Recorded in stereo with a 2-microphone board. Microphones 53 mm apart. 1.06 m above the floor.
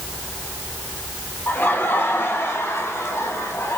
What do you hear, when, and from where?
1.5 s laughter: 35° left (ahead or behind), 3 m; by 3.8 s 55° left (ahead or behind), 4 m